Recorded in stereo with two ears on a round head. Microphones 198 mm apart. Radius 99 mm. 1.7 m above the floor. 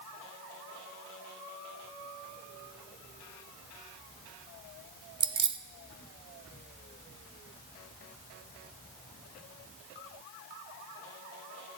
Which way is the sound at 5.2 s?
20° right (ahead or behind).